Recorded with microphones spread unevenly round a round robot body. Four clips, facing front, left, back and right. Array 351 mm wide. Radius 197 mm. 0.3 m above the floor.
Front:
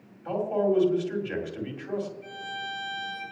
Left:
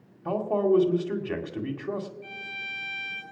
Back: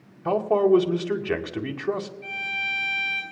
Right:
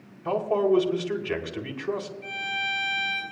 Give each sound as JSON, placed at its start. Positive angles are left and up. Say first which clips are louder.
{"t": 0.2, "sound": "a man speaking", "louder": "right 1 dB, back 6 dB", "azimuth_deg": -175, "distance_m": 2.0}
{"t": 2.2, "sound": "a violin", "louder": "right 9 dB, back 3 dB", "azimuth_deg": -170, "distance_m": 8.0}